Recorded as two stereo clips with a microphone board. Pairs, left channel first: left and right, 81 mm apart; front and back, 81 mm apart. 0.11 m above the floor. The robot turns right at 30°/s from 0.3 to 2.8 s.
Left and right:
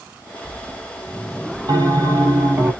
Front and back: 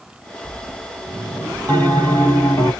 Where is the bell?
55° right, 2.5 m; by 2.7 s 25° right, 2.5 m.